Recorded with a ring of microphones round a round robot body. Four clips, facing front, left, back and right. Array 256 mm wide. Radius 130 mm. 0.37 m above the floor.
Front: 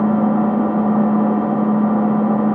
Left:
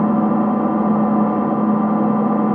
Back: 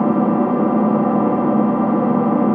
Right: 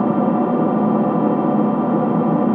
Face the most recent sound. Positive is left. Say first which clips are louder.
# even, even
turn(degrees=-130)